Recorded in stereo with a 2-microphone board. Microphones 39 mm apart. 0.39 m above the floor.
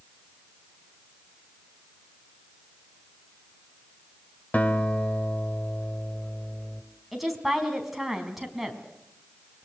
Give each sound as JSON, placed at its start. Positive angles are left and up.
{"t": 4.5, "sound": "a guitar", "side_deg": 45, "distance_m": 1.6}
{"t": 7.1, "sound": "a woman speaking", "side_deg": 0, "distance_m": 4.0}